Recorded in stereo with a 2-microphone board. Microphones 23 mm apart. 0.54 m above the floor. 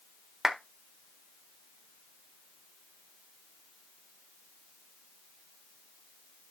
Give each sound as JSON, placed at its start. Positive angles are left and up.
{"t": 0.4, "sound": "a clap", "side_deg": -20, "distance_m": 1.4}